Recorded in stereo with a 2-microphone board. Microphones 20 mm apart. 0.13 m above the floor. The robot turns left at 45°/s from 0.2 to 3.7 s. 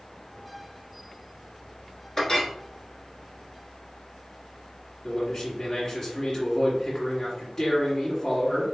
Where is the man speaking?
20° left (ahead or behind), 1.7 m.